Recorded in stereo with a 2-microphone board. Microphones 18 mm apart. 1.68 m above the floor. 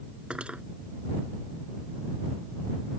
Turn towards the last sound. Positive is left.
turn(degrees=-85)